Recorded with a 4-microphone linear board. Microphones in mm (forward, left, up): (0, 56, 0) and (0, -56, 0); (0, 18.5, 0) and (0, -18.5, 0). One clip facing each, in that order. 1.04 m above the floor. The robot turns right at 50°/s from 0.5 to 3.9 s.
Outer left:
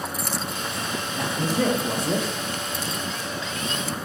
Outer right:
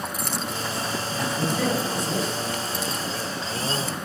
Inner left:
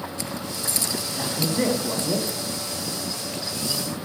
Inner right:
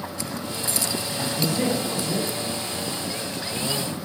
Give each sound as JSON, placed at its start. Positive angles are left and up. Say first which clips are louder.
{"t": 1.1, "sound": "a man speaking", "louder": "outer left 2 dB, inner left 1 dB", "azimuth_deg": 20, "distance_m": 0.7}